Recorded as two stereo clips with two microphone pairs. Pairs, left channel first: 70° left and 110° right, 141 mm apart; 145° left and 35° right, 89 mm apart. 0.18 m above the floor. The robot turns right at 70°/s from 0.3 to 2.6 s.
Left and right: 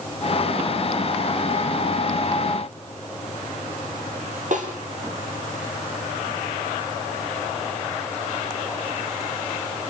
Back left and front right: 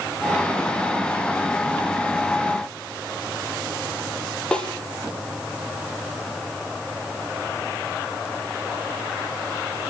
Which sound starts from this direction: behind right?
A snare drum, at 4.5 s.